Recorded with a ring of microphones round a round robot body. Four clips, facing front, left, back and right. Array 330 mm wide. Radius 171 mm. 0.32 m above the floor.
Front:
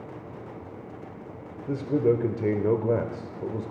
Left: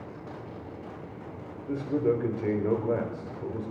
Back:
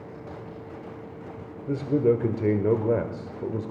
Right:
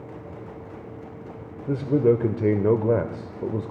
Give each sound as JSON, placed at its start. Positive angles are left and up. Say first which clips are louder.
{"t": 1.7, "sound": "a man speaking", "louder": "right 7 dB, back 1 dB", "azimuth_deg": -100, "distance_m": 1.1}